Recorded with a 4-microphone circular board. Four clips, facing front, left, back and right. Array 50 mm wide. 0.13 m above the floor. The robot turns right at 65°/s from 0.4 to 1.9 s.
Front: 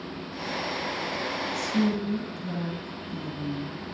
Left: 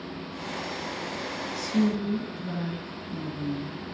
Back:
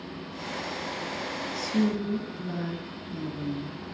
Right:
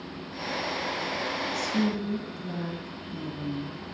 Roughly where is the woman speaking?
Behind left.